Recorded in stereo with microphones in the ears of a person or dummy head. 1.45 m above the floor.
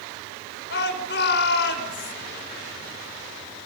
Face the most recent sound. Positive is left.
turn(degrees=65)  # may be behind; listen again after turning